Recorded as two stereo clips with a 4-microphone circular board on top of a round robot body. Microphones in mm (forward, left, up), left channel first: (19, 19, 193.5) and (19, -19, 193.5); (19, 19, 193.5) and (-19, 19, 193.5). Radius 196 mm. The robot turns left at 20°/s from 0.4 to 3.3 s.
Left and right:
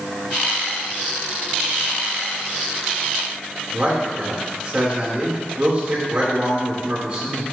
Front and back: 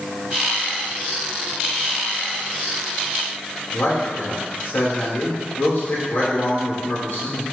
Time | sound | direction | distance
3.7 | a man speaking | 25° right | 3.5 m